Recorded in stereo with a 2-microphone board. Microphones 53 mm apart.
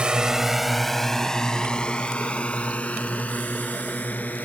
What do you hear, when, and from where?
0.0 s a drone: 20° right (ahead or behind); by 4.5 s 30° left (ahead or behind)